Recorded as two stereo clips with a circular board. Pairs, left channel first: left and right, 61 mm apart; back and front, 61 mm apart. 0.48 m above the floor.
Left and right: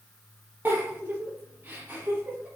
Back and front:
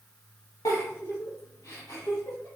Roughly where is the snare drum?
I don't hear a snare drum.